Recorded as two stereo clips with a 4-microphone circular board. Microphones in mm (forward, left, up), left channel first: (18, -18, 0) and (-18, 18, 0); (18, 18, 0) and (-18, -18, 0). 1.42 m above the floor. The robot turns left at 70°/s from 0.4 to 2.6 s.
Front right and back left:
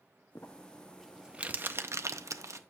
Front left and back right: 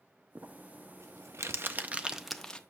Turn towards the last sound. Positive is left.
turn(degrees=115)